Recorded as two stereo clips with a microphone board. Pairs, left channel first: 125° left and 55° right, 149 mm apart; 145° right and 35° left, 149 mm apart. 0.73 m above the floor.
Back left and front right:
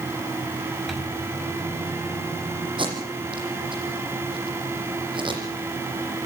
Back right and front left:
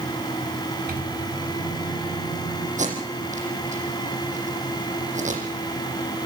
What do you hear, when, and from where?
0.9 s a microwave: 35° left, 4.5 m
2.8 s tape being pulled: straight ahead, 8 m